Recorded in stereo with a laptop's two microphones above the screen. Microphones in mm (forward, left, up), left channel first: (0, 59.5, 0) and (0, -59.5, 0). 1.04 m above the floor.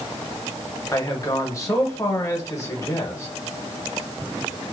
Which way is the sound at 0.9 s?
25° left (ahead or behind).